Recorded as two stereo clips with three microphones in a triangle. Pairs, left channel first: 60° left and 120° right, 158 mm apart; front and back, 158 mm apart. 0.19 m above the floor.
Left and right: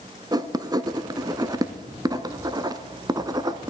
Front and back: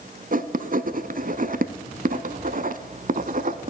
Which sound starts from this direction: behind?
Writing, at 0.3 s.